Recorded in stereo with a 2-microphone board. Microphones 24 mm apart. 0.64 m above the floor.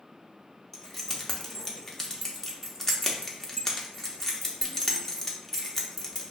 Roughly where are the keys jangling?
Centre.